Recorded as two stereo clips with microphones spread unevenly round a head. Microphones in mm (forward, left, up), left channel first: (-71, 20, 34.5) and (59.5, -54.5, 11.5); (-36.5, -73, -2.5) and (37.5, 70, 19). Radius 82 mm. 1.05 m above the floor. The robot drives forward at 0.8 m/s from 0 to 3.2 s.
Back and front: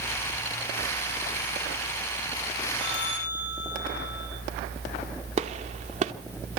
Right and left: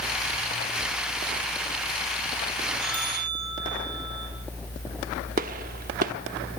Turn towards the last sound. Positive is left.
turn(degrees=25)